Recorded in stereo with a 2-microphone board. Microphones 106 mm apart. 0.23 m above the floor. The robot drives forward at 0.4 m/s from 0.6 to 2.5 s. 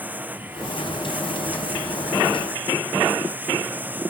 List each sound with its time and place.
0.0 s running water: 15° right (ahead or behind)